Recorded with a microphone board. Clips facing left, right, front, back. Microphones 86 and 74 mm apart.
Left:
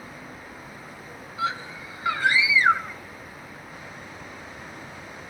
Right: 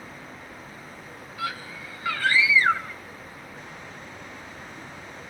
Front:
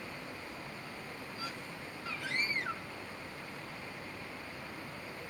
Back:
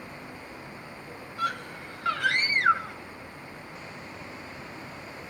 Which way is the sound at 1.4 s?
160° left.